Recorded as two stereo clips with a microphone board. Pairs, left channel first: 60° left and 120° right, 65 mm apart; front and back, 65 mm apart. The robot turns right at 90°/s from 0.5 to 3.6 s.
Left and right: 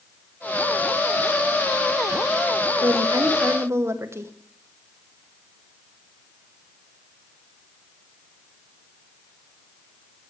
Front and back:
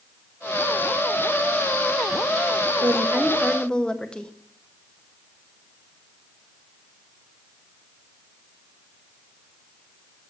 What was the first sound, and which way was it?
A woman speaking, 150° right.